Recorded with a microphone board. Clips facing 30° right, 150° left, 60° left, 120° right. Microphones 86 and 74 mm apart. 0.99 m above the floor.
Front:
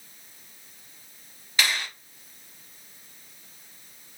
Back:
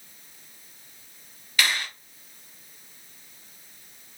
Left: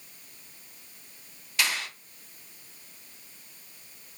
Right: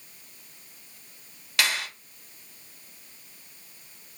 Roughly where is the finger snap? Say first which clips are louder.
Back 1 dB, right 2 dB; right.